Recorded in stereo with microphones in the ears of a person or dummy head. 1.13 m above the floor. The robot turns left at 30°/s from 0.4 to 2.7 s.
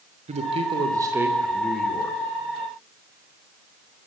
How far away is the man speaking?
About 3 m.